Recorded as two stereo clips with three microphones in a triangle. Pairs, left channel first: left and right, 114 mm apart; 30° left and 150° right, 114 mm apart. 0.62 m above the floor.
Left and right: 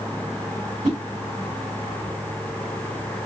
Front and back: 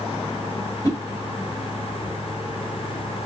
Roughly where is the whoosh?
Ahead right.